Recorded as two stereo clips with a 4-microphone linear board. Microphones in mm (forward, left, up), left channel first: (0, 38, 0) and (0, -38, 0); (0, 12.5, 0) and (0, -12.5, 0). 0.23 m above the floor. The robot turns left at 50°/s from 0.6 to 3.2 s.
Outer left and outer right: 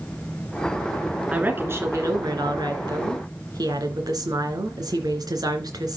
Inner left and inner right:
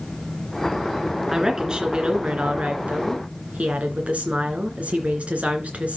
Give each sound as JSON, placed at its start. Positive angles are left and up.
{"t": 1.3, "sound": "a woman speaking", "azimuth_deg": -15, "distance_m": 2.5}